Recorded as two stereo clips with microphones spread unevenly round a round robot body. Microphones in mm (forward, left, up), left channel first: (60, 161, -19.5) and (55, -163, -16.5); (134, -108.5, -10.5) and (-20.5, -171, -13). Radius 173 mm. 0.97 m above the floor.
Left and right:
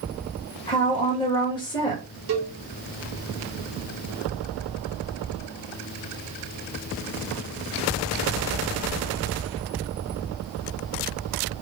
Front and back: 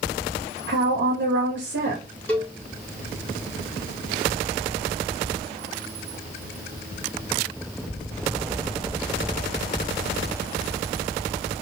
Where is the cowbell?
60° right, 1.2 m.